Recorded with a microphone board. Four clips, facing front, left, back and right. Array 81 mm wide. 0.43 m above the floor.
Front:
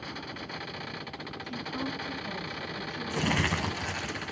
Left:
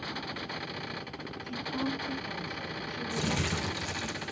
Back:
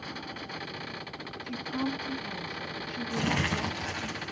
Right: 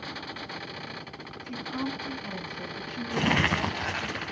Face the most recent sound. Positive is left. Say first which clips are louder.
# right 7 dB, front 1 dB
turn(degrees=-85)